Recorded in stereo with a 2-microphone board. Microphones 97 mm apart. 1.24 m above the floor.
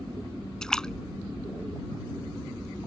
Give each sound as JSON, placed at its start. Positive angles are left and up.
{"t": 0.6, "sound": "a splash", "side_deg": 5}